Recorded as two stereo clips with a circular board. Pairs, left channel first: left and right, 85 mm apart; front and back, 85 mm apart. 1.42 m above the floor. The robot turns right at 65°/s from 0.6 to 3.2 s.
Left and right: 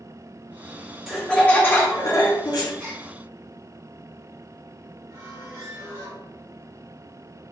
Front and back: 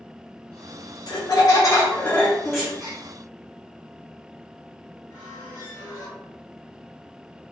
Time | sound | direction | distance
1.1 | laughter | 5° right | 0.6 m
2.8 | a gasp | 170° left | 1.3 m
5.1 | a squeak | 35° right | 1.0 m